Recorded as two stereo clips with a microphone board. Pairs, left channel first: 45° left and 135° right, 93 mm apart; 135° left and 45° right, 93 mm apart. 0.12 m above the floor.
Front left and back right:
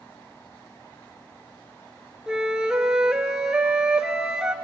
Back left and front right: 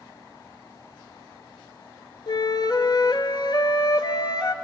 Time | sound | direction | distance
2.3 | a flute | 145° left | 0.9 m